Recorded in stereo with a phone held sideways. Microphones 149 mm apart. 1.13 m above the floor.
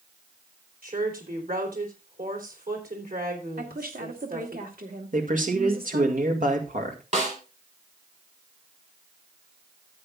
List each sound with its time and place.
0.8 s a woman speaking: 80° right, 3.5 m
3.6 s a woman speaking: 80° right, 2 m
5.1 s a man speaking: 60° right (ahead or behind), 1.9 m
7.1 s a snare drum: 55° right (ahead or behind), 3 m